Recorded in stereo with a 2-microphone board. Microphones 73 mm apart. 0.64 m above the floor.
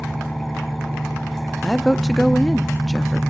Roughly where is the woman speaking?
Centre.